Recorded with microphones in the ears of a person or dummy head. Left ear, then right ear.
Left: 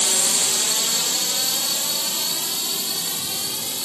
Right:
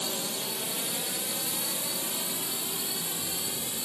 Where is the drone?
55° left (ahead or behind); by 3.9 s 25° left (ahead or behind).